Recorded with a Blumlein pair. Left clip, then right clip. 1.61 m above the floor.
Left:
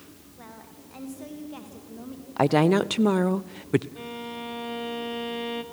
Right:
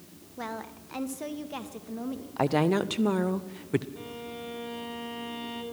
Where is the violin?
15° left, 2 m.